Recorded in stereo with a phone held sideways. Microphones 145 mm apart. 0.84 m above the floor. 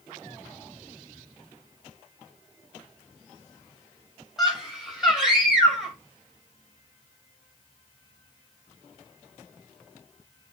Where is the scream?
5° right (ahead or behind), 5 m.